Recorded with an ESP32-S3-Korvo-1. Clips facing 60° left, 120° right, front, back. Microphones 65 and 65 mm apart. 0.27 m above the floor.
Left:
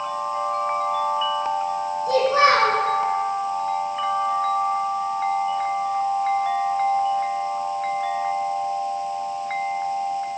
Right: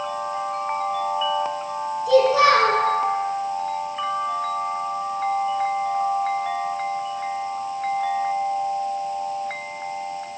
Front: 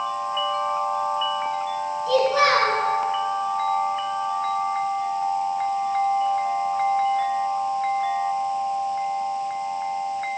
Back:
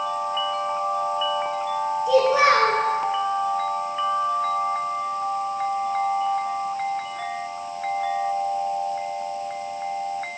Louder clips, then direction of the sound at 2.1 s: Right 2 dB, back 1 dB; 105° left.